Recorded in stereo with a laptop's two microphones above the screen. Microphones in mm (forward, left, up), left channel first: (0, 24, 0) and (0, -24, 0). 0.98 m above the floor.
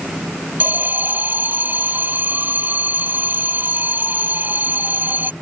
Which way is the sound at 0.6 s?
40° right (ahead or behind).